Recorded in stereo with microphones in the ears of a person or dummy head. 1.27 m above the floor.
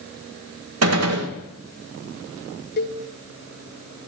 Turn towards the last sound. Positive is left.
turn(degrees=45)  # may be behind; listen again after turning